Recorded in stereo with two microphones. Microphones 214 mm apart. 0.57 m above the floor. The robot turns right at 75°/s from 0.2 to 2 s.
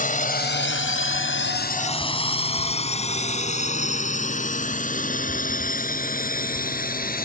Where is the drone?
40° left (ahead or behind); by 7.2 s 45° left (ahead or behind).